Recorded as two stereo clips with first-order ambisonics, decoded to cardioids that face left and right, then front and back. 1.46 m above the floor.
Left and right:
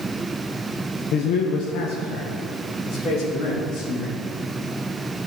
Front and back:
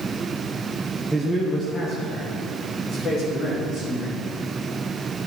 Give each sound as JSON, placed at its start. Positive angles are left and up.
{"t": 1.1, "sound": "a man speaking", "azimuth_deg": 90, "distance_m": 0.9}